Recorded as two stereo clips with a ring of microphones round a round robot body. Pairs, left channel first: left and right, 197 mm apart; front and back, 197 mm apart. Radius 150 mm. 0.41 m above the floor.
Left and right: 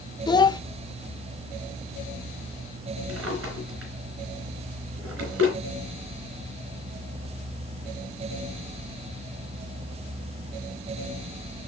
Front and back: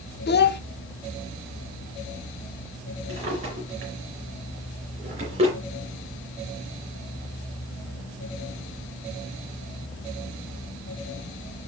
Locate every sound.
0.3 s a child speaking: 20° left, 0.7 m
3.1 s a drawer: 115° right, 3.5 m